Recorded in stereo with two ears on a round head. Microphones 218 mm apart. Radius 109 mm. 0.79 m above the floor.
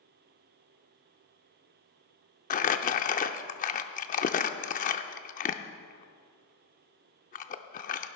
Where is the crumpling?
35° left (ahead or behind), 0.6 m.